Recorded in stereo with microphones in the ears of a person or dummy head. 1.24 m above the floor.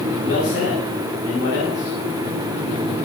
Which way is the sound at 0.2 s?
75° left (ahead or behind).